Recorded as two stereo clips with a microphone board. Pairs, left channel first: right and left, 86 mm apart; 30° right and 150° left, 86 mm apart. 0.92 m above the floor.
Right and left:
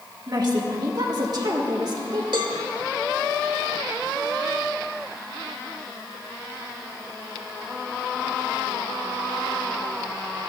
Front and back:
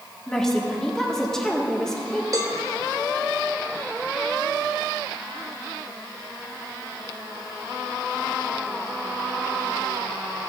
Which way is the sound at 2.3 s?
105° left.